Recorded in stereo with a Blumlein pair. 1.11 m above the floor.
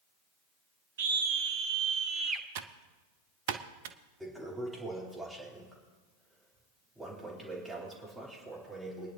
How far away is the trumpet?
No trumpet in this recording.